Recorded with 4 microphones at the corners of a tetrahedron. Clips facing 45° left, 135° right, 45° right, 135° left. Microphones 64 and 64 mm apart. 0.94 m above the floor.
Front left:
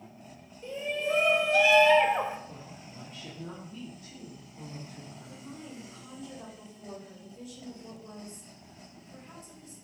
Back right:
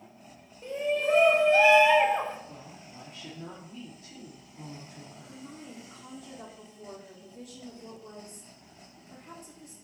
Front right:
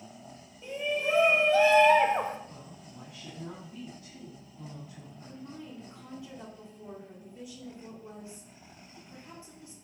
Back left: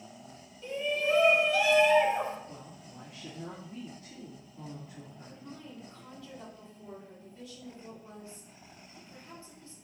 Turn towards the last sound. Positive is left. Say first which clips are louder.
# even, front right 6 dB
turn(degrees=-115)